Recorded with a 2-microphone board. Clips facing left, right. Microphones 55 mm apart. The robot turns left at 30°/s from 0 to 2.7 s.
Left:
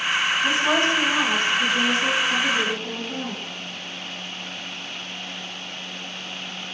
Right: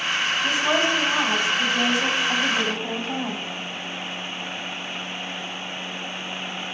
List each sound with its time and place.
0.4 s a woman speaking: 5° right, 3.5 m; by 3.4 s 75° right, 3.5 m